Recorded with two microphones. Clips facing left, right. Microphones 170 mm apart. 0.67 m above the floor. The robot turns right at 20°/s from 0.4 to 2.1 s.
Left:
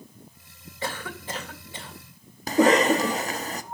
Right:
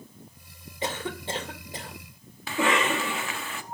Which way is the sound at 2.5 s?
35° left (ahead or behind).